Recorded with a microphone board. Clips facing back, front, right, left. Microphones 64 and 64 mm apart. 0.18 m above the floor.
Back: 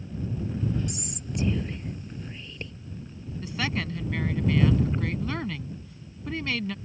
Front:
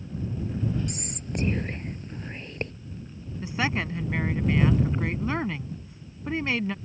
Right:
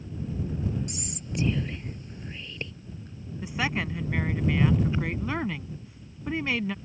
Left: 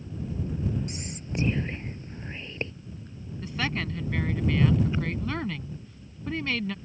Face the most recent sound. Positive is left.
turn(degrees=-30)